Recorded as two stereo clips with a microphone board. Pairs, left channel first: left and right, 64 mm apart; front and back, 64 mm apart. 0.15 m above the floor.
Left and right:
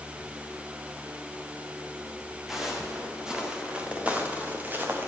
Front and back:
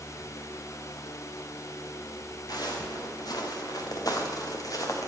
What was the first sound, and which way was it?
Footsteps, 5° right.